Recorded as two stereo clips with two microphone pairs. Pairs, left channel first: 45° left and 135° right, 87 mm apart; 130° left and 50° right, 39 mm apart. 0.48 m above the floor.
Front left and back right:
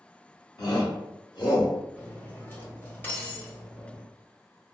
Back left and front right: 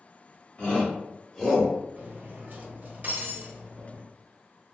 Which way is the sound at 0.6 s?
70° left.